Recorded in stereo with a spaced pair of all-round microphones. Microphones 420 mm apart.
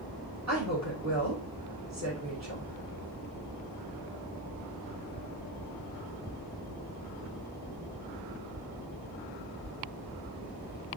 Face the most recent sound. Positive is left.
turn(degrees=-40)  # may be behind; listen again after turning